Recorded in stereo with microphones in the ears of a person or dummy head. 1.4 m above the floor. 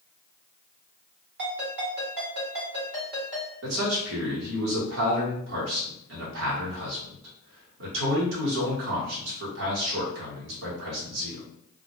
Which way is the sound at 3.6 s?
75° right (ahead or behind).